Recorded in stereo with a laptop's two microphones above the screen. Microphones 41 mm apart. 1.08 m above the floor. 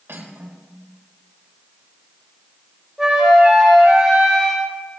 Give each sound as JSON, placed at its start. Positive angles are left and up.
{"t": 0.1, "sound": "cutlery clinking", "side_deg": -70, "distance_m": 3.0}
{"t": 3.0, "sound": "a flute", "side_deg": -15, "distance_m": 4.0}